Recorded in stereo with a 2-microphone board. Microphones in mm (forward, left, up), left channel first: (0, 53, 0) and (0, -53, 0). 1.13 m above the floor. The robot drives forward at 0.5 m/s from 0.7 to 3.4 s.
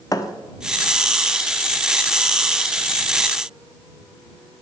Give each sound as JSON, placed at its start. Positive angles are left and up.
{"t": 0.1, "sound": "a thud", "side_deg": 35, "distance_m": 0.8}